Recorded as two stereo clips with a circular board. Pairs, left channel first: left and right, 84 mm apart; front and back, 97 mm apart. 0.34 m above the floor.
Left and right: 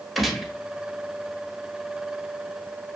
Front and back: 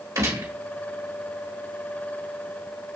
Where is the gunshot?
175° right, 1.2 m.